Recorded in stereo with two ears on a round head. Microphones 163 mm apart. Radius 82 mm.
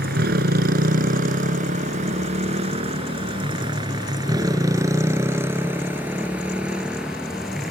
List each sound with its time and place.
0.0 s a motorcycle: 55° right (ahead or behind); by 7.7 s centre (ahead or behind)